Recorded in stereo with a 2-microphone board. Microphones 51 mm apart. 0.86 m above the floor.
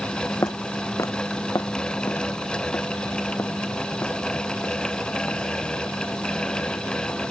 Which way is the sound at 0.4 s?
65° left (ahead or behind).